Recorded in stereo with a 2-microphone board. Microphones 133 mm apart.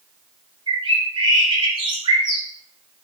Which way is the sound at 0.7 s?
40° right (ahead or behind).